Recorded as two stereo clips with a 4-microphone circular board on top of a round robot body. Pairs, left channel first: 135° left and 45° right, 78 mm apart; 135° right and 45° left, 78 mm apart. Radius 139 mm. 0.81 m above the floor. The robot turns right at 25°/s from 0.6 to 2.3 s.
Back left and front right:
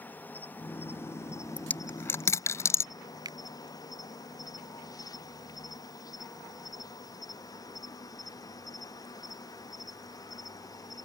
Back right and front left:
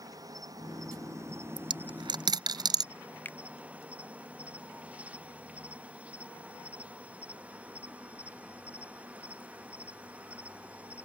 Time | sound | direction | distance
0.0 | an insect | 75° left | ?
1.6 | a dropped coin | 60° left | ?
3.2 | a finger snap | 70° right | ?